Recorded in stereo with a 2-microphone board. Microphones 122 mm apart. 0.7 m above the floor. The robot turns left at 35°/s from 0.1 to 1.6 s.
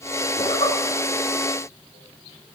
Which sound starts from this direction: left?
A zipper, at 0.4 s.